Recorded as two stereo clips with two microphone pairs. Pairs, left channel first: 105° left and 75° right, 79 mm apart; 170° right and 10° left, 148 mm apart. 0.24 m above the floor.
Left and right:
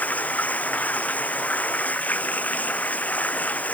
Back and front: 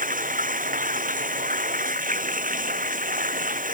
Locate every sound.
0.0 s running water: 35° left